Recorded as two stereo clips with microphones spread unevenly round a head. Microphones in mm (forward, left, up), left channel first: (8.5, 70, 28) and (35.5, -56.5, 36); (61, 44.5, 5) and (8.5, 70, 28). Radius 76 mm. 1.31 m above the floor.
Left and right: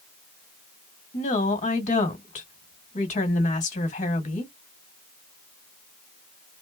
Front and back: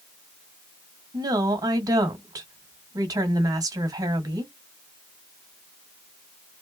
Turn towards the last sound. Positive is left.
turn(degrees=140)